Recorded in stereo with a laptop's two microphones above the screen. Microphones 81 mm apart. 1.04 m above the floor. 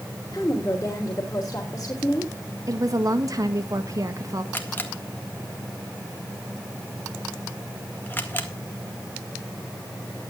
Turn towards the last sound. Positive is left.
turn(degrees=25)  # may be behind; listen again after turning